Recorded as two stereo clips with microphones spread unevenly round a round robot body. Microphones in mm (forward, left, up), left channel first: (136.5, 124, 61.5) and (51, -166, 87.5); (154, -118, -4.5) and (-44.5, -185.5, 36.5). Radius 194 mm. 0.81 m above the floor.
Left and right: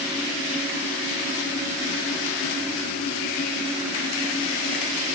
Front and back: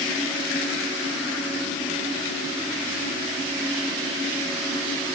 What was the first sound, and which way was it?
Only background noise.